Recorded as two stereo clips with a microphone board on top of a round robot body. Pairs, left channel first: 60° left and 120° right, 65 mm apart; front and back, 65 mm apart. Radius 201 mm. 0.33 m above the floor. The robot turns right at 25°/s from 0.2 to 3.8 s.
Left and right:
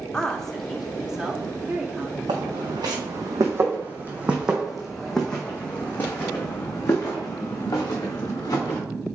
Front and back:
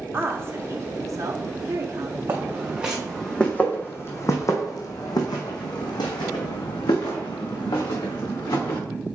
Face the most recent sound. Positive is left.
turn(degrees=20)